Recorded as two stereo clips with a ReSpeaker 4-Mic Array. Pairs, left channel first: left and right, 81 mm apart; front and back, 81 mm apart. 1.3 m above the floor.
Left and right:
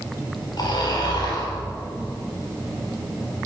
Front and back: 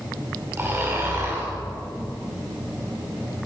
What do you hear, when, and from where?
0.6 s snoring: 120° left, 5.5 m